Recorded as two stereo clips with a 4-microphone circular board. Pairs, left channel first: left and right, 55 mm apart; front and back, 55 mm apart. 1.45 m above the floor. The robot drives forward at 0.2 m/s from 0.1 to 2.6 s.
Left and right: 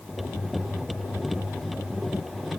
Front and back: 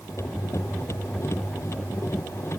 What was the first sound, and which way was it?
Only background noise.